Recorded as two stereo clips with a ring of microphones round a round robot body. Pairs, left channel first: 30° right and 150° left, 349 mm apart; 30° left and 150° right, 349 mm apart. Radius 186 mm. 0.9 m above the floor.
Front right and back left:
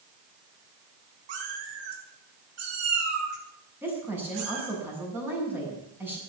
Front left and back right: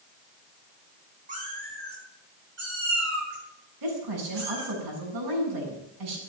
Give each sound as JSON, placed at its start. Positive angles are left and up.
{"t": 1.3, "sound": "a cat meowing", "azimuth_deg": 140, "distance_m": 5.5}
{"t": 3.8, "sound": "a woman speaking", "azimuth_deg": -125, "distance_m": 8.0}